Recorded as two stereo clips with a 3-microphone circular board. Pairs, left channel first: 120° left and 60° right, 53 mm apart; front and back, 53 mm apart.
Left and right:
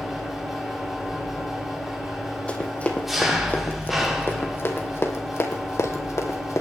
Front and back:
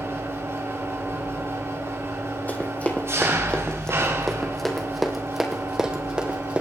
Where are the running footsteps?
55° left, 3.5 m; by 6.6 s 110° left, 3.5 m.